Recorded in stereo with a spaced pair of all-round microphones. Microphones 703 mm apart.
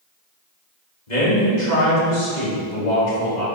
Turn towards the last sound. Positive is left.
turn(degrees=75)  # may be behind; listen again after turning